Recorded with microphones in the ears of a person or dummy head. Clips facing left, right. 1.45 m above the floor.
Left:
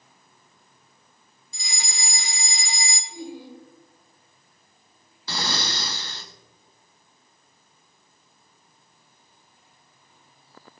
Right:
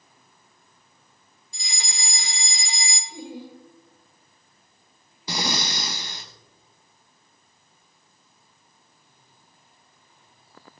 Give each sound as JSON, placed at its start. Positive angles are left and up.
{"t": 1.5, "sound": "a fire alarm", "side_deg": 65, "distance_m": 2.5}
{"t": 3.1, "sound": "laughter", "side_deg": -65, "distance_m": 6.5}
{"t": 5.3, "sound": "breathing", "side_deg": -15, "distance_m": 1.0}